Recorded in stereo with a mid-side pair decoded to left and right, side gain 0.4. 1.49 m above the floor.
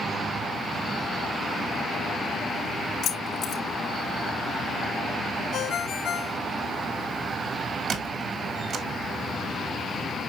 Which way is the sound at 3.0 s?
65° left.